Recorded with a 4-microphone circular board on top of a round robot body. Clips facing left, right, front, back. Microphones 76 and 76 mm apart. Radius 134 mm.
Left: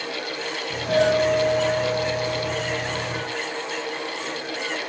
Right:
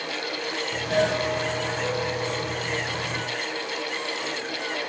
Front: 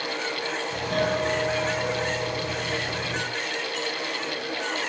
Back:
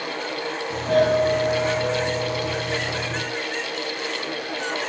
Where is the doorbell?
130° left, 6 m.